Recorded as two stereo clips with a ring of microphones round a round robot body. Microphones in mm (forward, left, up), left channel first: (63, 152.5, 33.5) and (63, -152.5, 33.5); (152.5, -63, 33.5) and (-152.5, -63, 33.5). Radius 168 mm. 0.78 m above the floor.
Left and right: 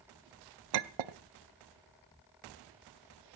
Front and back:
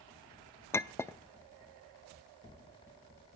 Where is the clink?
80° right, 0.6 m.